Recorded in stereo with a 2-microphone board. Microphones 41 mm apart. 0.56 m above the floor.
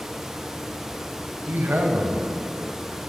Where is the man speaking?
55° right (ahead or behind), 3 m.